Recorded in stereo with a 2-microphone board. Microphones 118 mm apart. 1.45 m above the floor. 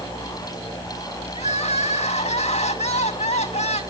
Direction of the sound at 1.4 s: 65° left (ahead or behind).